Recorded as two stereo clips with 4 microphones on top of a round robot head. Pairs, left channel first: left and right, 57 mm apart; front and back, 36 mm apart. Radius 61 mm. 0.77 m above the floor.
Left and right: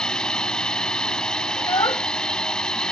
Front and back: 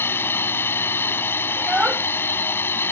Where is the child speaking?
110° left.